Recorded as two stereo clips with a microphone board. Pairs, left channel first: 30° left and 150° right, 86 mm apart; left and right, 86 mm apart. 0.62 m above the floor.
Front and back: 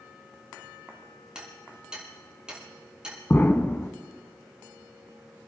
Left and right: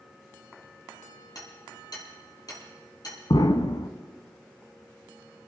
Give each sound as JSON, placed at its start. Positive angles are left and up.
{"t": 1.4, "sound": "hammering", "azimuth_deg": 130, "distance_m": 6.0}
{"t": 3.3, "sound": "an explosion", "azimuth_deg": 90, "distance_m": 0.8}